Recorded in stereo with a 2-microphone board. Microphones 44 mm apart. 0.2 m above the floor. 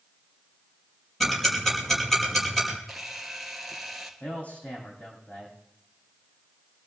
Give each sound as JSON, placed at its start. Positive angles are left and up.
{"t": 1.2, "sound": "ticking", "side_deg": 5, "distance_m": 5.5}
{"t": 2.9, "sound": "a camera shutter", "side_deg": 0, "distance_m": 2.5}
{"t": 4.2, "sound": "a man speaking", "side_deg": 30, "distance_m": 8.5}